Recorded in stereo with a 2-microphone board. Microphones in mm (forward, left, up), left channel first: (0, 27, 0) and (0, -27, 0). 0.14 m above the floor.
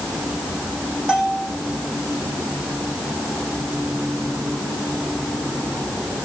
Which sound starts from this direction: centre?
A bell, at 1.1 s.